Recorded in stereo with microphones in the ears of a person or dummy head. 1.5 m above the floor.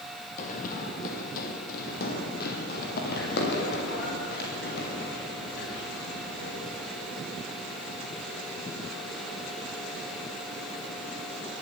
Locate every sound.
0.4 s running footsteps: 45° left (ahead or behind), 3 m; by 6.9 s 60° left (ahead or behind), 8 m